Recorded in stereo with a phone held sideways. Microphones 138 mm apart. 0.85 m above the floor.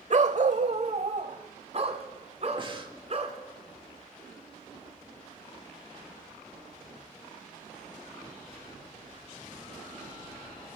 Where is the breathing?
35° right (ahead or behind), 1.7 m.